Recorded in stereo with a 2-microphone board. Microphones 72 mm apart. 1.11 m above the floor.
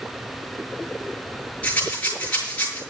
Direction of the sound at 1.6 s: 20° left (ahead or behind).